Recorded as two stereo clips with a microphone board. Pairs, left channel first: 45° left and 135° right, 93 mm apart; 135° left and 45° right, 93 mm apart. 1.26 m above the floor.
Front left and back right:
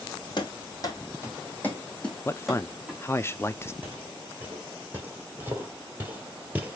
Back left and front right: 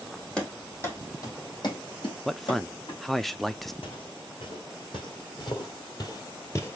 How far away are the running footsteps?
About 2.0 m.